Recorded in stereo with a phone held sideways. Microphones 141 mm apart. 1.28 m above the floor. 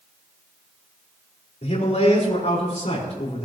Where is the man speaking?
55° left (ahead or behind), 5 m.